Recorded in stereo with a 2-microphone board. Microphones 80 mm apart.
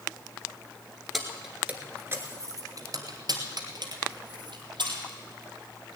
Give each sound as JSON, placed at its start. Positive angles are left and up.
{"t": 1.1, "sound": "keys jangling", "side_deg": 0, "distance_m": 1.4}